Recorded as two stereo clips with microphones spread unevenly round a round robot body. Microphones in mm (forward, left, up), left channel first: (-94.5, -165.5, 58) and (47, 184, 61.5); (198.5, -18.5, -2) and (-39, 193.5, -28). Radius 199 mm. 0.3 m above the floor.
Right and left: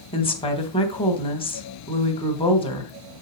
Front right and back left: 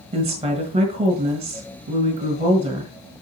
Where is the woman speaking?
175° right, 1.5 m.